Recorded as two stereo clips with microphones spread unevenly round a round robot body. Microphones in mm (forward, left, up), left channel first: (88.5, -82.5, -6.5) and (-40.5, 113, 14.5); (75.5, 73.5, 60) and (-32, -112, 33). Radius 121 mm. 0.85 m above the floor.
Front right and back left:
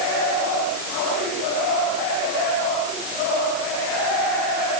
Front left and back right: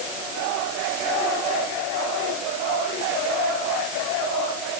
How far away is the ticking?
No ticking in this recording.